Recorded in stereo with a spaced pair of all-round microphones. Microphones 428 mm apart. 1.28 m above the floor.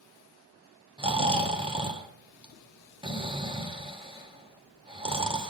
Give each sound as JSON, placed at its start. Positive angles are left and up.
{"t": 1.0, "sound": "snoring", "side_deg": -10, "distance_m": 1.1}